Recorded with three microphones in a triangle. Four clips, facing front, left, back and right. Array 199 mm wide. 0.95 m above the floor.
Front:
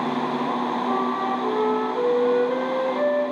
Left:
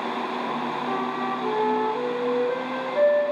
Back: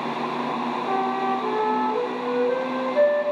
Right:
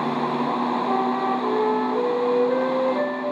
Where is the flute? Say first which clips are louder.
Right 5 dB, back 3 dB; straight behind, 7.5 m.